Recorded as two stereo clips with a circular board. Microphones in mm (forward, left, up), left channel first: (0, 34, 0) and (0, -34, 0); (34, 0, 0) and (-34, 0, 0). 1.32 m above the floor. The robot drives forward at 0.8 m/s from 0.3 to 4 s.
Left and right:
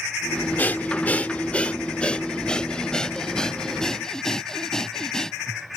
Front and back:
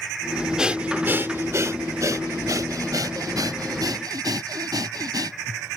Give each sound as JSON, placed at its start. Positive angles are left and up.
{"t": 0.6, "sound": "breathing", "azimuth_deg": 110}